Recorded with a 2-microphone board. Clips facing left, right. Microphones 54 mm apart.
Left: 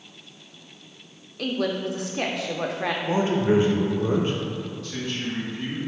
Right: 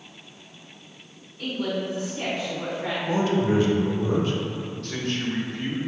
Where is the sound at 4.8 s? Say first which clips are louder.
Right 4 dB; 60° right (ahead or behind), 0.7 m.